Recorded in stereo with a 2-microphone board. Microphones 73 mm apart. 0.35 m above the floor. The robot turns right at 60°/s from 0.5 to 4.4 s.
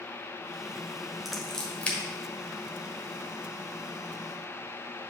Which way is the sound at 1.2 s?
Centre (ahead or behind).